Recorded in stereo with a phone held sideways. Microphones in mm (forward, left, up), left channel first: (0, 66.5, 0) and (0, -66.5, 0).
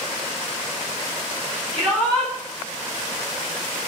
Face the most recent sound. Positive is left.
turn(degrees=-5)  # may be behind; listen again after turning